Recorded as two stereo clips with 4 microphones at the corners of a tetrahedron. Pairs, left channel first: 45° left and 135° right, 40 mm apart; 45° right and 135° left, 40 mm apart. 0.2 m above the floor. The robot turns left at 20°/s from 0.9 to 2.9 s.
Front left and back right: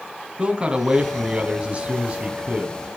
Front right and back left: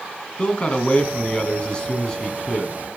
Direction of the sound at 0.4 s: 85° right.